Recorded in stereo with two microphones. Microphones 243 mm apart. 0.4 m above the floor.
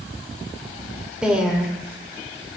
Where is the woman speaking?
5° right (ahead or behind), 0.9 m.